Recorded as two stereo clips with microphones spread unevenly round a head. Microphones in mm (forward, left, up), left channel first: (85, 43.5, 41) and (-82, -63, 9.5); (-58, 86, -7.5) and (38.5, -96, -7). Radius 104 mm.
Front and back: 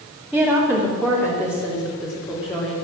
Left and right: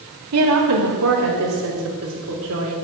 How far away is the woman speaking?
About 3 m.